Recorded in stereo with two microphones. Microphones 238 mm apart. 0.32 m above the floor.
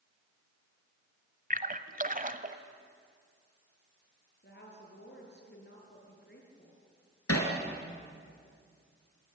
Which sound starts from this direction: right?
A splash, at 1.5 s.